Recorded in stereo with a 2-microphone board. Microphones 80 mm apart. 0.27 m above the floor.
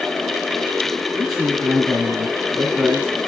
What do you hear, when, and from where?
1.1 s a man speaking: centre (ahead or behind), 2.5 m